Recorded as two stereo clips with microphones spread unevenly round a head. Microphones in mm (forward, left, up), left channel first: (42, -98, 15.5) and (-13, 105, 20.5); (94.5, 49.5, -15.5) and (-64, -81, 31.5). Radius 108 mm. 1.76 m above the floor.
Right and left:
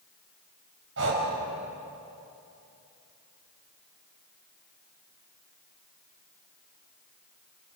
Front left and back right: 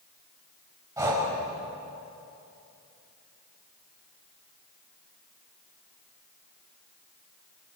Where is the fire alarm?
No fire alarm in this recording.